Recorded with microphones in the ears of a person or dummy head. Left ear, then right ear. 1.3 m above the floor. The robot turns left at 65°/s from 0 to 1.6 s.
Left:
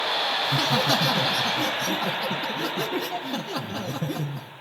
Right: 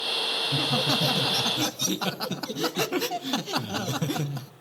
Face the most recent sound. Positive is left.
turn(degrees=-40)